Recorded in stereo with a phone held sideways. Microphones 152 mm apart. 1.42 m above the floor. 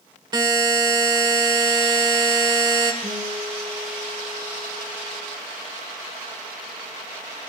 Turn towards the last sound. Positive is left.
turn(degrees=-80)